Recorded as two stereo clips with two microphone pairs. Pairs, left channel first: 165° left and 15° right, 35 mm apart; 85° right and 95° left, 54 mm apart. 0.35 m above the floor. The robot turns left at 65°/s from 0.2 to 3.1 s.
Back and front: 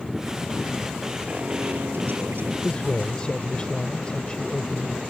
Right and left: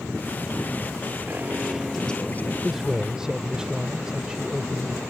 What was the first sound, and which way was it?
An alarm, 45° left.